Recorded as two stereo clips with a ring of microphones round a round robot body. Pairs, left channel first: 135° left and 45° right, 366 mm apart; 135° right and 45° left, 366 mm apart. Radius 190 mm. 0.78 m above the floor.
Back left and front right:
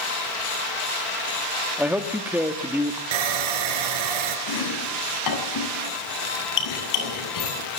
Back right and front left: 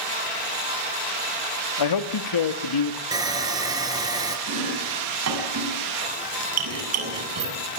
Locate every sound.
1.8 s a man speaking: 130° right, 2 m
3.1 s sawing: 35° right, 4 m
4.5 s chopping: 95° left, 7.5 m